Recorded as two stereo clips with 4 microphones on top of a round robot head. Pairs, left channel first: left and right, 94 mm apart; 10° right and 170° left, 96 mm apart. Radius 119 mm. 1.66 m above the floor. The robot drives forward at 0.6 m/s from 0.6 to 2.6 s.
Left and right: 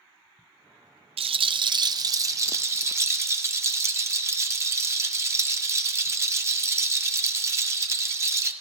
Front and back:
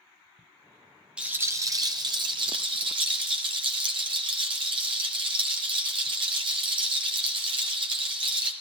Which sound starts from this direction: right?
A rattle, at 1.2 s.